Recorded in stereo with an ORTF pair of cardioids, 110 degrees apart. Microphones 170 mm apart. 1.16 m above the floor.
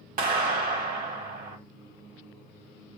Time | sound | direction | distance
0.2 | a clap | 60° right | 1.5 m